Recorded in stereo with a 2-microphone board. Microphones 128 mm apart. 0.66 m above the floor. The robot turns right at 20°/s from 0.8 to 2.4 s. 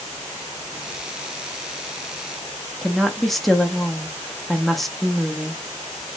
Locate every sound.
2.8 s a woman speaking: centre (ahead or behind), 0.6 m